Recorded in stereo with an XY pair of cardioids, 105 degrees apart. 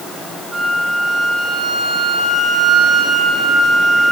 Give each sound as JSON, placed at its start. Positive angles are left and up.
{"t": 0.5, "sound": "a flute", "azimuth_deg": -35, "distance_m": 7.0}